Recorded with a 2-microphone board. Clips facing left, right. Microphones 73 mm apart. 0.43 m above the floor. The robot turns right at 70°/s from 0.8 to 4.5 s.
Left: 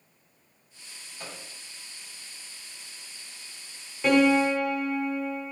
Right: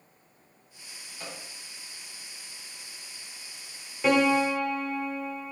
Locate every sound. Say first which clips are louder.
1.2 s a microwave: even; 5° left (ahead or behind), 1.1 m; by 1.4 s 15° left (ahead or behind), 1.1 m
4.0 s a piano: left 2 dB; 5° right (ahead or behind), 0.5 m; by 5.5 s 10° left (ahead or behind), 0.5 m